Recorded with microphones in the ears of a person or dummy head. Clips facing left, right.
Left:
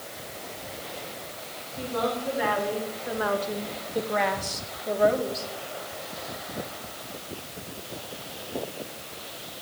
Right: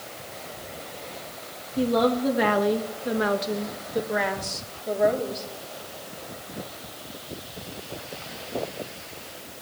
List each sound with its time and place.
1.8 s a woman speaking: 75° right (ahead or behind), 1.5 m; by 5.5 s 5° left (ahead or behind), 3 m